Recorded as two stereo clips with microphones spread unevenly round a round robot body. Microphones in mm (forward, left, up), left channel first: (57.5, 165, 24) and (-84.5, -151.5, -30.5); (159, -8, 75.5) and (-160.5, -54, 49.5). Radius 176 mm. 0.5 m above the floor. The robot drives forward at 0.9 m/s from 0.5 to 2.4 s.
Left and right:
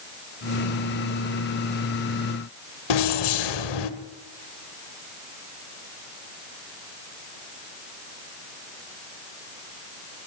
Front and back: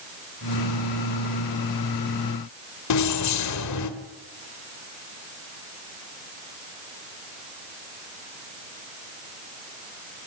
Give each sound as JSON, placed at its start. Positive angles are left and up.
{"t": 2.9, "sound": "keys jangling", "azimuth_deg": 45, "distance_m": 1.9}